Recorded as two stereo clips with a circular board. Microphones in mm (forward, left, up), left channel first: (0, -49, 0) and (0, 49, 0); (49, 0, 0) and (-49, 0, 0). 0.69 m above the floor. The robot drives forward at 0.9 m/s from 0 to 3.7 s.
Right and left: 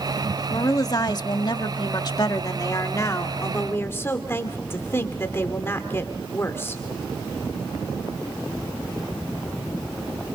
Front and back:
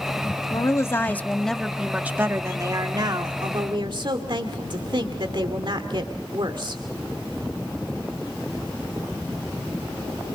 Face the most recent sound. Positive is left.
turn(degrees=-150)